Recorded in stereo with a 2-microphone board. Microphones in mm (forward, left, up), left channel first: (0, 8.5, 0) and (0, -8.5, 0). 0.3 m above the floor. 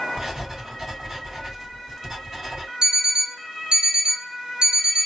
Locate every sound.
0.2 s writing: 30° right (ahead or behind), 3 m
2.8 s an alarm clock: 65° right (ahead or behind), 0.9 m